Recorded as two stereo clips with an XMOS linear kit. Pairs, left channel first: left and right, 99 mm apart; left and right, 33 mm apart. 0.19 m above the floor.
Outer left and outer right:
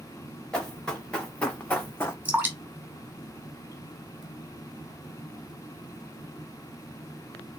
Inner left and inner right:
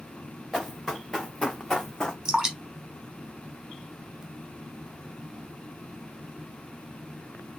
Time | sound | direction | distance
0.5 | running footsteps | 10° left (ahead or behind) | 1.7 m
2.2 | dripping | 20° right (ahead or behind) | 0.9 m